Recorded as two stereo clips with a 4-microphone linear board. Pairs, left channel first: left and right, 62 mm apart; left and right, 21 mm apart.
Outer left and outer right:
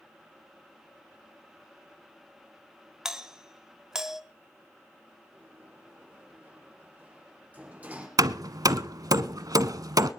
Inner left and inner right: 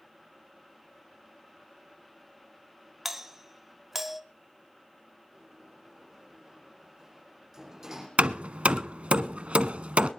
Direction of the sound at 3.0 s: 10° right (ahead or behind).